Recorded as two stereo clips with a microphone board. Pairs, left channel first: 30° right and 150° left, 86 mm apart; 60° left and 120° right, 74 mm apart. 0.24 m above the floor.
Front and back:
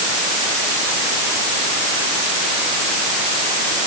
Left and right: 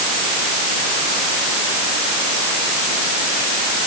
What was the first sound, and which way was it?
Only background noise.